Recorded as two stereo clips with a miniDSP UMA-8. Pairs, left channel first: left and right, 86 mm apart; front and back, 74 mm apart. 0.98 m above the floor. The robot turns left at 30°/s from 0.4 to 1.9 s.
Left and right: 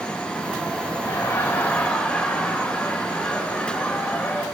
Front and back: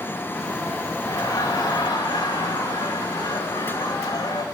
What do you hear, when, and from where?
1.0 s laughter: 35° left, 4 m; by 4.4 s 10° left, 4 m